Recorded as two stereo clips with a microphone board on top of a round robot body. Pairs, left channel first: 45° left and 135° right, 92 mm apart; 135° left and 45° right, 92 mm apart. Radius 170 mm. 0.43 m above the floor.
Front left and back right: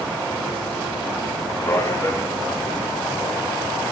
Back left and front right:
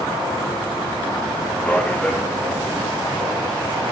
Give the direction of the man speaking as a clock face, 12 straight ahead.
10 o'clock.